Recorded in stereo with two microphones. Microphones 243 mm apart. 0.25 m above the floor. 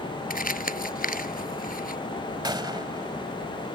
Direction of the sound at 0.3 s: 35° left (ahead or behind).